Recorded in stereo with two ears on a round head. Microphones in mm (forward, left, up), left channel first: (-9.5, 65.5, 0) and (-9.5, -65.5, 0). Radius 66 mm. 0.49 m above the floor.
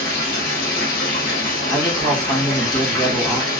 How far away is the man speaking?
About 0.9 m.